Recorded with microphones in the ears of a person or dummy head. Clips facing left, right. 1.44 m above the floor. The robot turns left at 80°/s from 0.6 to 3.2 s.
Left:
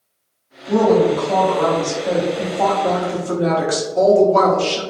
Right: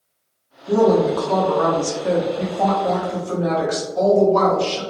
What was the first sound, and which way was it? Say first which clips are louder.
A woman speaking: left 1 dB; 20° right.